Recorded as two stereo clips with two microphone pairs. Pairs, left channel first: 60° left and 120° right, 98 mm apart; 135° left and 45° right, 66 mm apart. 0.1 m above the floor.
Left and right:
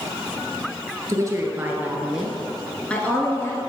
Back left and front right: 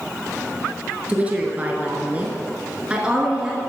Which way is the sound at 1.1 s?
100° right.